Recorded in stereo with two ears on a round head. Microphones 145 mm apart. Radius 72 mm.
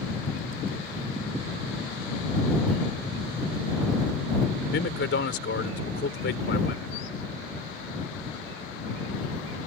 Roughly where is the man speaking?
Left.